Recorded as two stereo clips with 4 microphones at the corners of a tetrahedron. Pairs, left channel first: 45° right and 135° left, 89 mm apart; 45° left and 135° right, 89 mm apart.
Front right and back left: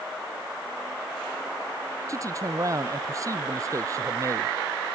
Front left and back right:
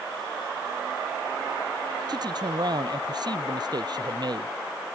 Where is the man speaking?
175° right.